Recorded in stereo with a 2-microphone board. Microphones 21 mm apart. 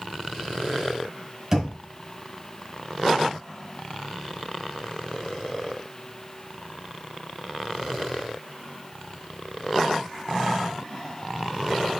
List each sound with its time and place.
1.5 s knocking: 30° right (ahead or behind), 1.3 m